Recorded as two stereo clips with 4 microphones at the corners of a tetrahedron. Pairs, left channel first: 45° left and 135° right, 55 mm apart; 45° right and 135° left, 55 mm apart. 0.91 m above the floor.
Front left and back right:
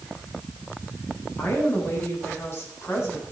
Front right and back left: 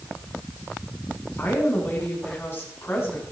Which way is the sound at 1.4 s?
5° left.